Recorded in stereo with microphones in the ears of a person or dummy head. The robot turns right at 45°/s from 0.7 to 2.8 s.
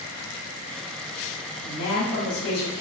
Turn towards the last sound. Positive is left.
turn(degrees=135)